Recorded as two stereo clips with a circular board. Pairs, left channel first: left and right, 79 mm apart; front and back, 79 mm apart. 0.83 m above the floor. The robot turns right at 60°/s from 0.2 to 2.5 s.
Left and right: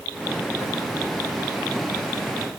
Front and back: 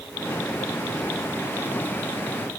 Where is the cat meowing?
I don't hear a cat meowing.